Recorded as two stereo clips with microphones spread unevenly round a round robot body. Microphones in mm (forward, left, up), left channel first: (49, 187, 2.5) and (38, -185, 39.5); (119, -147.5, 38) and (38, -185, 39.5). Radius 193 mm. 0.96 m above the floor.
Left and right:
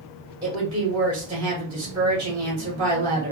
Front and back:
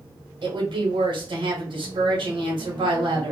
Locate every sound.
0.4 s a woman speaking: 170° right, 1.3 m